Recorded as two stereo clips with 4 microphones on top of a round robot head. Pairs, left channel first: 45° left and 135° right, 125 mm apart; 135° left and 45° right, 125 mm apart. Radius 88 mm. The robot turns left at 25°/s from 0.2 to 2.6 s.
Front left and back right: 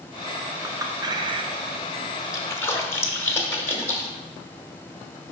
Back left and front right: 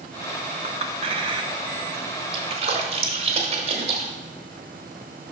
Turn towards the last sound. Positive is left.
turn(degrees=-20)